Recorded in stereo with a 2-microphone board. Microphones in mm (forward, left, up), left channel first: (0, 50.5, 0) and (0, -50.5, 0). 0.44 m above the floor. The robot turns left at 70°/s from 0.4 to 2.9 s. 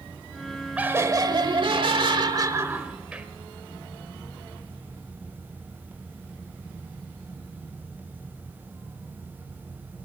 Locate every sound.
0.8 s laughter: 15° right, 1.5 m; by 3.3 s 165° right, 1.5 m